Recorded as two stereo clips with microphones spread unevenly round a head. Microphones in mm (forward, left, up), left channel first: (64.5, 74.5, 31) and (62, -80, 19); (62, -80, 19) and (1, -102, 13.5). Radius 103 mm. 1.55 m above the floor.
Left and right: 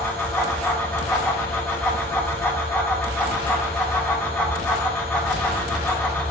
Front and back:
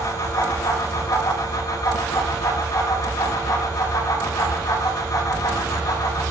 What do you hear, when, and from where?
0.0 s a fan: 15° left, 2.5 m